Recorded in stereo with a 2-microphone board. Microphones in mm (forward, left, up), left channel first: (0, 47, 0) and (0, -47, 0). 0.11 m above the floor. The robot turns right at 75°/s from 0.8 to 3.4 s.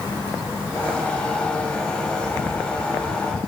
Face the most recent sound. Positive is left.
No sound to turn to.